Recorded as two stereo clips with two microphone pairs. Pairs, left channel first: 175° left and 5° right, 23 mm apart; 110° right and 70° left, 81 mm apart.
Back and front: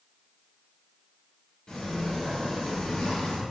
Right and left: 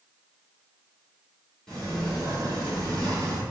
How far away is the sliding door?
About 1.5 m.